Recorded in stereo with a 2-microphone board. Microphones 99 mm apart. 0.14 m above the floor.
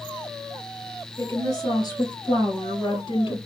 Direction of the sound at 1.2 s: 35° left (ahead or behind).